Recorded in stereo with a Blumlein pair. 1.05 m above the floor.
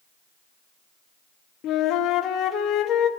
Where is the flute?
30° left, 2 m.